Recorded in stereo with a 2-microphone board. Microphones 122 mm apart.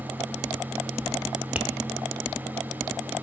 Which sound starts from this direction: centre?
Tapping, at 1.6 s.